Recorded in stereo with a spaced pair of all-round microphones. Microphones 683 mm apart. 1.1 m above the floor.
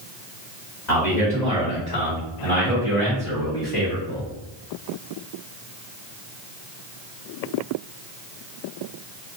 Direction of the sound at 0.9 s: 75° left (ahead or behind).